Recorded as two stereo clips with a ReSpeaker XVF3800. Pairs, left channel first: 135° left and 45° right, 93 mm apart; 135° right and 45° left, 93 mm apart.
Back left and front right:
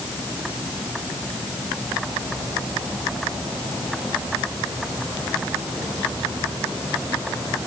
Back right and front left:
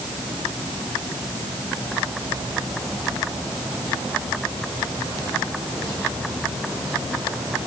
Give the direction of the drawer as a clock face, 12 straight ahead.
I don't hear a drawer.